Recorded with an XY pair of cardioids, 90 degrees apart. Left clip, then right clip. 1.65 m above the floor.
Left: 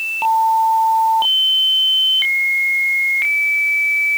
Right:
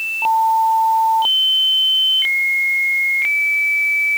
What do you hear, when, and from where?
Only background noise.